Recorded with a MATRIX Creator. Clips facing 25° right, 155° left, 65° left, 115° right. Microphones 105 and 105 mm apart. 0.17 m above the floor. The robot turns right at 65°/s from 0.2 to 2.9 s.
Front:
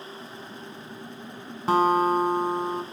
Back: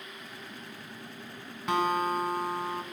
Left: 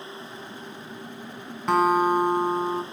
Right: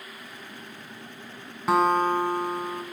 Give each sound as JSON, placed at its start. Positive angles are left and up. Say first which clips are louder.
{"t": 1.7, "sound": "a guitar", "louder": "front 7 dB, left 1 dB", "azimuth_deg": -30, "distance_m": 1.7}